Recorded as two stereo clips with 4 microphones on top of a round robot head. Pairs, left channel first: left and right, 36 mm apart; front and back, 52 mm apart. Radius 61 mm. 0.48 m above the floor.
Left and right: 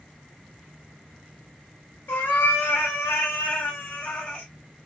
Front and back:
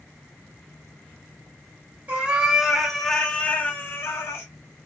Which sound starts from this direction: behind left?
A cat meowing, at 2.1 s.